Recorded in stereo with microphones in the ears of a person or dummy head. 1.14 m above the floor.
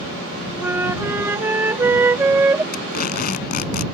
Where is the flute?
15° right (ahead or behind).